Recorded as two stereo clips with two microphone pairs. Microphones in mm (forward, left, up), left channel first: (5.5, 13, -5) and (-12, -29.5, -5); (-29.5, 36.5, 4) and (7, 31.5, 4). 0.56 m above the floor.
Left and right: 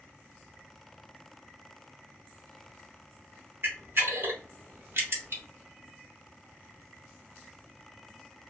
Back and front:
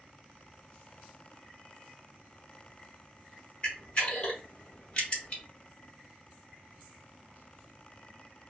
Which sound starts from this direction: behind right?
A camera shutter, at 3.6 s.